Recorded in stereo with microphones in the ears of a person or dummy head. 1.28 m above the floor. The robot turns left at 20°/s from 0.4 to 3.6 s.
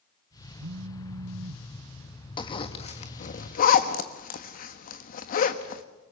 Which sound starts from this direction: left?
A zipper, at 2.4 s.